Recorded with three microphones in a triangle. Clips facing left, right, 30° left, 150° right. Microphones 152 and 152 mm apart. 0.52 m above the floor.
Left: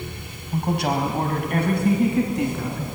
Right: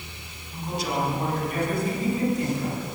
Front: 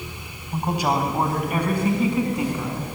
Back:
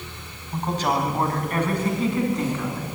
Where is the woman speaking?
110° left, 4 m.